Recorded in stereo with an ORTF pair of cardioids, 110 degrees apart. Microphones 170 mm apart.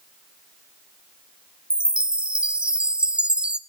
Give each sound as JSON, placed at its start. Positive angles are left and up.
{"t": 1.7, "sound": "a chime", "azimuth_deg": -5, "distance_m": 0.7}